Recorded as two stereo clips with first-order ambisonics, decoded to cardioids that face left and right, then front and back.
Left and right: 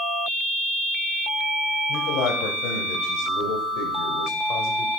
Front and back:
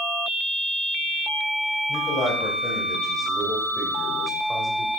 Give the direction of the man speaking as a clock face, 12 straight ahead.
10 o'clock.